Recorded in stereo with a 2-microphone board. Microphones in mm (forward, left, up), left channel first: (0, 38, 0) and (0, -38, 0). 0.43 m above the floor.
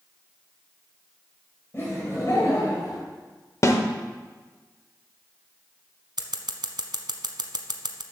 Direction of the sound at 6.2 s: 75° right (ahead or behind).